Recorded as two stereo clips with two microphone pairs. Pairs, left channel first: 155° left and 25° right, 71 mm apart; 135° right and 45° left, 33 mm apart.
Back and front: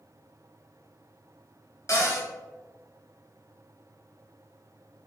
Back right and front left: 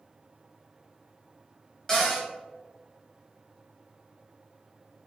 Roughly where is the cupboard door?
Behind left.